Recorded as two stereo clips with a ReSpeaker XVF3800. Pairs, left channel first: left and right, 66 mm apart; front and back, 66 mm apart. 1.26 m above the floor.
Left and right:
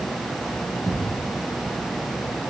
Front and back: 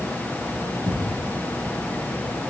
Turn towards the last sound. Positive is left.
turn(degrees=0)